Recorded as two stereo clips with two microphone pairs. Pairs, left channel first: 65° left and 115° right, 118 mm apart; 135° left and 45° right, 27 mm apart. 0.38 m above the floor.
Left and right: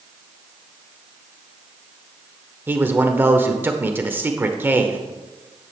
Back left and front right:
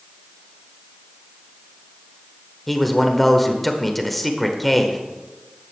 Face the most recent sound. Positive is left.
turn(degrees=-140)